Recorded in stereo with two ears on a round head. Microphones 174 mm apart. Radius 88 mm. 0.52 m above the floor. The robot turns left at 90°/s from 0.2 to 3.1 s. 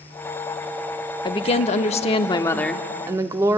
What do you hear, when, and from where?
1.2 s a woman speaking: 140° left, 0.9 m; by 3.6 s 30° right, 0.9 m